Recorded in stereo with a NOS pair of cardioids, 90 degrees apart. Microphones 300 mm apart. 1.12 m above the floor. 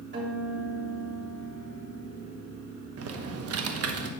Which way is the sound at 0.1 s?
40° right.